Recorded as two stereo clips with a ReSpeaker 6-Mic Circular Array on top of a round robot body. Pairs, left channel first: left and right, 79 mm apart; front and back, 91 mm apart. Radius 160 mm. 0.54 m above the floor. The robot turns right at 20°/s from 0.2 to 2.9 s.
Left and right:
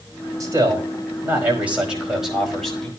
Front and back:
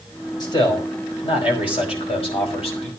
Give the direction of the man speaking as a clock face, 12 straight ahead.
1 o'clock.